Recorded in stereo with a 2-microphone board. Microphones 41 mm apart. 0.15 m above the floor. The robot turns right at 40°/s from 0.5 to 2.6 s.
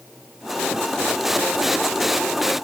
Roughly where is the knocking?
I don't hear knocking.